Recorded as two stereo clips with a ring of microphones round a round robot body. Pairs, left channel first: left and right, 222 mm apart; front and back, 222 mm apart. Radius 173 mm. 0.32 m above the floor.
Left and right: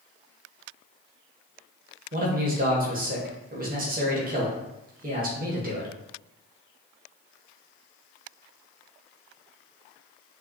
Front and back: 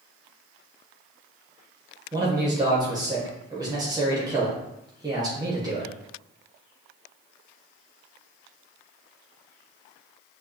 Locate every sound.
2.1 s a man speaking: 115° right, 1.2 m